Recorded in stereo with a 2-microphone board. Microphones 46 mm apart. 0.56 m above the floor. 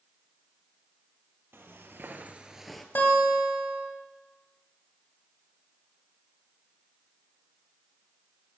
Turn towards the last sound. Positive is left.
turn(degrees=55)  # may be behind; listen again after turning